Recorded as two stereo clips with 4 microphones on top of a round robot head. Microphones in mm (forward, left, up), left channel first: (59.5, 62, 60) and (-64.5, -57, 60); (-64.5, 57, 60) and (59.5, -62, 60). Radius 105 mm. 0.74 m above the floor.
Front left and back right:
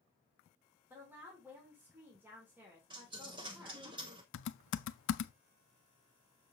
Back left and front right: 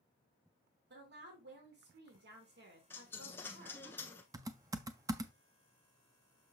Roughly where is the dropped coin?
Behind.